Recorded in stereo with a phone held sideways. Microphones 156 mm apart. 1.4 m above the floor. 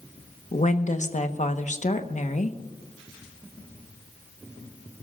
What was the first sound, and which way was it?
A woman speaking, 50° left (ahead or behind).